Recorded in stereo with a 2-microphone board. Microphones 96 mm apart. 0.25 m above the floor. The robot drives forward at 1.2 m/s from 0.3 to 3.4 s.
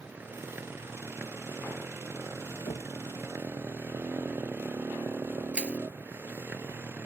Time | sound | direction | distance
0.0 | a motorcycle | 20° right (ahead or behind) | ?
2.7 | knocking | 65° left (ahead or behind) | ?
5.5 | crushing | 10° right (ahead or behind) | ?